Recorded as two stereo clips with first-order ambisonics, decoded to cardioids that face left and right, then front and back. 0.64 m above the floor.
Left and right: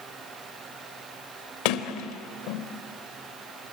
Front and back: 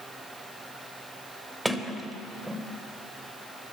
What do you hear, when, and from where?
1.6 s a sliding door: 90° left, 1.2 m